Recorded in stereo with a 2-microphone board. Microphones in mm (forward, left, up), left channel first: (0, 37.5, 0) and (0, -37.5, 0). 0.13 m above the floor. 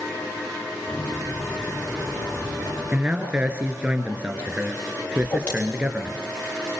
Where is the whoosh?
20° left (ahead or behind), 7 m.